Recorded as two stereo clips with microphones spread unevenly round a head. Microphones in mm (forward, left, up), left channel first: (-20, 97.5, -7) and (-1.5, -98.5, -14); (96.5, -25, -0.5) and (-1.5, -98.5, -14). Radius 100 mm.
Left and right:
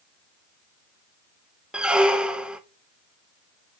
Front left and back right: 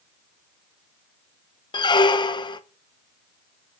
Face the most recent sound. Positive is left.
turn(degrees=0)